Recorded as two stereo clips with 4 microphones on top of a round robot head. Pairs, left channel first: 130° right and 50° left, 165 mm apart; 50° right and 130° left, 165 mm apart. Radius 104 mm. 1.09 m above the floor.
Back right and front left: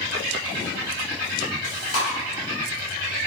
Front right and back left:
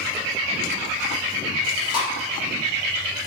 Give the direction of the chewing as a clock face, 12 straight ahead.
4 o'clock.